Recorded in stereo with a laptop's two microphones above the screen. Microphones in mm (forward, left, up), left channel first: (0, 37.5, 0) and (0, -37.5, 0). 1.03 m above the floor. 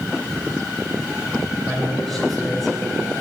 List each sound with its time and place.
1.7 s a man speaking: 5° left (ahead or behind), 3.5 m